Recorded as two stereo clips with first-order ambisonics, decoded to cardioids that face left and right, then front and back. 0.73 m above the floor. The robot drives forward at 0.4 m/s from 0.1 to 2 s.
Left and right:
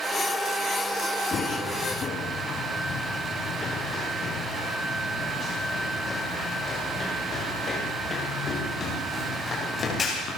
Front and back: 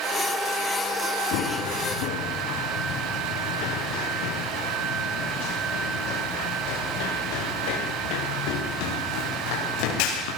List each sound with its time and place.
1.3 s running footsteps: 25° left, 4.5 m; by 10.3 s 15° left, 12.5 m